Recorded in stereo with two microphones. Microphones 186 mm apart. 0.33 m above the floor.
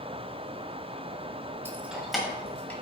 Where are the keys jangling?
15° right (ahead or behind), 1.0 m; by 2.7 s 10° left (ahead or behind), 1.9 m.